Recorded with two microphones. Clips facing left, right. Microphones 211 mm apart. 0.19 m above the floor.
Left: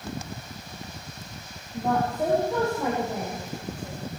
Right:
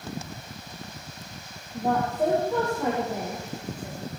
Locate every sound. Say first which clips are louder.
1.7 s a woman speaking: even; centre (ahead or behind), 4.5 m